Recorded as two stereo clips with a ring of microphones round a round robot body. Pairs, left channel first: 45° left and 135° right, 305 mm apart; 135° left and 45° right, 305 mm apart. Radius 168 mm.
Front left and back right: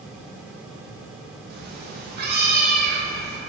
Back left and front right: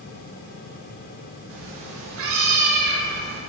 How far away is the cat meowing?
About 0.6 m.